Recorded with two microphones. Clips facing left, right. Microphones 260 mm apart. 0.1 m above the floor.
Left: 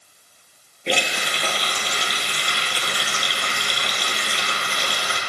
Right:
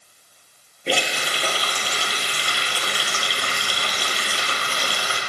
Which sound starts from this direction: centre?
A running tap, at 0.9 s.